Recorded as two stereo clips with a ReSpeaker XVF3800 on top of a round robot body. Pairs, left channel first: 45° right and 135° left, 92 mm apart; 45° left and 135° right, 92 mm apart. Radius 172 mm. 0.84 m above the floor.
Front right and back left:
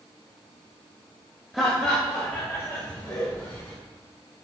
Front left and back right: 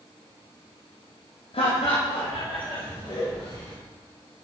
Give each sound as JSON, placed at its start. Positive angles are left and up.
{"t": 1.5, "sound": "laughter", "azimuth_deg": 45, "distance_m": 1.6}